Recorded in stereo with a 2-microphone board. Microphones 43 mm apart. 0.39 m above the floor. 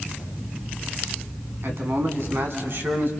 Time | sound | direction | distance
1.6 | a man speaking | 65° right (ahead or behind) | 4 m